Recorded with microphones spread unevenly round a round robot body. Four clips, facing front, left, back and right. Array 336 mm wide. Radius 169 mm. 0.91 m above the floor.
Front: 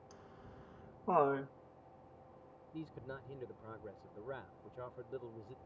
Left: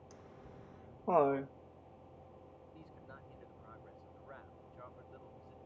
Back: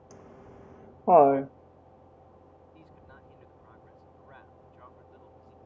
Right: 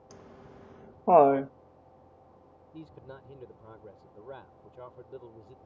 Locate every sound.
0.1 s laughter: 140° right
2.7 s a man speaking: 40° right